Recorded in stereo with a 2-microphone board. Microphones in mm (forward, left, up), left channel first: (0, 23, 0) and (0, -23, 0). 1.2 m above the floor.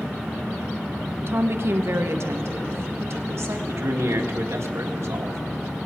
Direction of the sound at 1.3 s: 55° right (ahead or behind).